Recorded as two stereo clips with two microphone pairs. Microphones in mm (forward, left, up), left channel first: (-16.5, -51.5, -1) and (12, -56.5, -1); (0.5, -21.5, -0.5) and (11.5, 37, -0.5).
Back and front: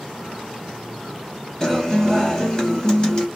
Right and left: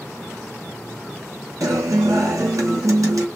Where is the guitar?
100° left, 1.8 m.